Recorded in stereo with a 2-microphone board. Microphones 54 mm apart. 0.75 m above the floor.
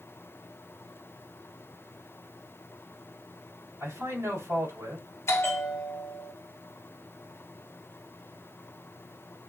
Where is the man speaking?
75° right (ahead or behind), 3.5 m.